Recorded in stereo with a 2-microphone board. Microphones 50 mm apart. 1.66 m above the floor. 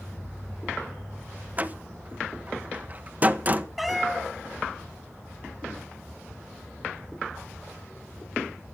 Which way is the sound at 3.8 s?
Centre (ahead or behind).